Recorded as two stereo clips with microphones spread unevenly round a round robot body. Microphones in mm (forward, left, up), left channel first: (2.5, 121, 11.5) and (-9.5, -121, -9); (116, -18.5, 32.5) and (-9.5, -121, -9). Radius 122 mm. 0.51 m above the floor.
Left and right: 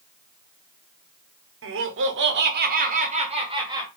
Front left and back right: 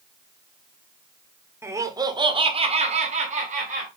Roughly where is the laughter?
Right.